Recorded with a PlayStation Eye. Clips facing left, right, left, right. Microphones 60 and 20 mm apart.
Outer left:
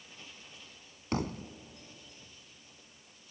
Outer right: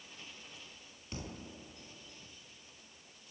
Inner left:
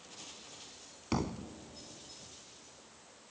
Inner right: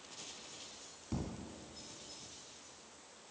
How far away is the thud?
About 0.9 m.